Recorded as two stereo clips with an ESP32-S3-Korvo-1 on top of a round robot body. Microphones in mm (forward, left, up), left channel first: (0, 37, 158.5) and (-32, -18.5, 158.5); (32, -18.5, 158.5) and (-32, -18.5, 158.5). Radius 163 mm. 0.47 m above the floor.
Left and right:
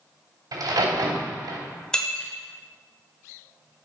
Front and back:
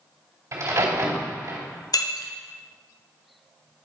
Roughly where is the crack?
Behind right.